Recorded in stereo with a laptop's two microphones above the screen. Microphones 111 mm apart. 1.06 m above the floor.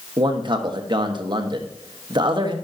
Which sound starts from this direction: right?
A man speaking, at 0.2 s.